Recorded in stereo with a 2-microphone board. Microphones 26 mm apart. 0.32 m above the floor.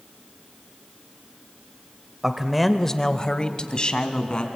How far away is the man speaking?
About 1.1 m.